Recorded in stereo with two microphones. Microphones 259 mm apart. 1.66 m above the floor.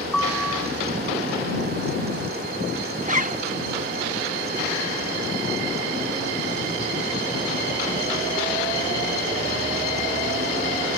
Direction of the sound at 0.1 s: Centre (ahead or behind).